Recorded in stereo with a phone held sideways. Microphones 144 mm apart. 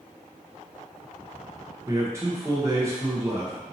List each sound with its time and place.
1.9 s a man speaking: 20° right (ahead or behind), 0.7 m